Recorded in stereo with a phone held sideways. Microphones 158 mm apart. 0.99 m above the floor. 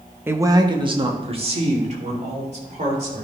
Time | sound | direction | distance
0.3 | a man speaking | 15° right (ahead or behind) | 0.9 m